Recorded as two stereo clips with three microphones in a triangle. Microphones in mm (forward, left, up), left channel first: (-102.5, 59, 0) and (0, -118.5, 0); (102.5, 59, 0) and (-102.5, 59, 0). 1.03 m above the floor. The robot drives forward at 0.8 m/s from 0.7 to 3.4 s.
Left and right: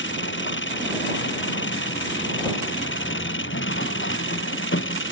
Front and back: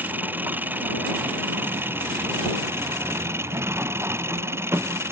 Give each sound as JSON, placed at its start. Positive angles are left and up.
{"t": 0.0, "sound": "an engine running", "azimuth_deg": 100}